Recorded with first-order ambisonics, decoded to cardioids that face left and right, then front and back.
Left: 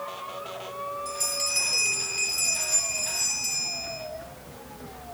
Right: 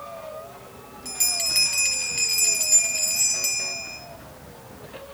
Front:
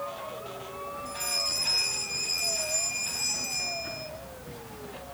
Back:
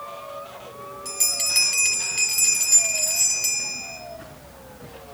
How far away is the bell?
About 5 m.